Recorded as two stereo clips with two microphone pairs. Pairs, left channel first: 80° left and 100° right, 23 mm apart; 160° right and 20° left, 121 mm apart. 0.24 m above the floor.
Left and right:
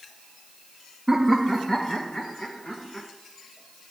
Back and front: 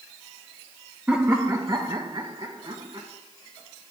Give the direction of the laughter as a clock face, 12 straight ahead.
1 o'clock.